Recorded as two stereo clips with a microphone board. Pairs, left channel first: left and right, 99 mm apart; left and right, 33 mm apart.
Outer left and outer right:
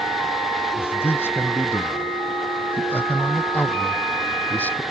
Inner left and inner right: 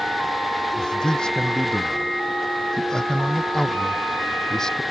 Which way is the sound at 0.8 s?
20° left (ahead or behind).